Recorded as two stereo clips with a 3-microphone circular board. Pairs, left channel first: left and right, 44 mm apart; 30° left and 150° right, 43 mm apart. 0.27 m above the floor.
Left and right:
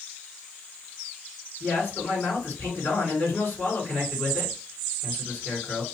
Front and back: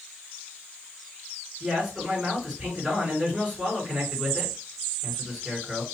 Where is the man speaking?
135° left, 3 m.